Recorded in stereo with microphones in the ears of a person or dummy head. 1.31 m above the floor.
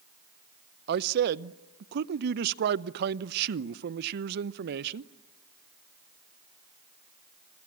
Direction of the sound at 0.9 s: 60° right (ahead or behind).